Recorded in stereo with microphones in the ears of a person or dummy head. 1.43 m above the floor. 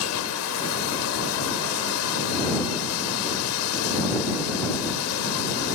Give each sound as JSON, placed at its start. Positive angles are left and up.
{"t": 0.0, "sound": "running water", "side_deg": 85}